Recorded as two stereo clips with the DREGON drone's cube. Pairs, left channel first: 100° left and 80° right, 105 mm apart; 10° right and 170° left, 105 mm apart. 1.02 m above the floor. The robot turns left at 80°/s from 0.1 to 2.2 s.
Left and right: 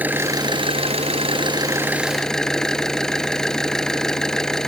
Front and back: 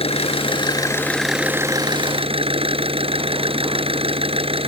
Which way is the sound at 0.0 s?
5° right.